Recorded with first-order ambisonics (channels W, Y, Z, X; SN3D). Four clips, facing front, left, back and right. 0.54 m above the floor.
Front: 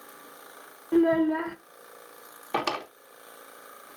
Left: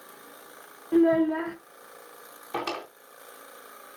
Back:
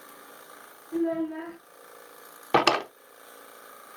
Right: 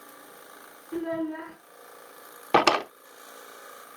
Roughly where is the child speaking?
Ahead left.